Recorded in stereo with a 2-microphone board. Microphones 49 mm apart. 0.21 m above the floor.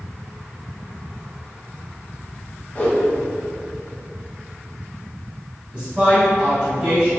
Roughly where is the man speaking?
Centre.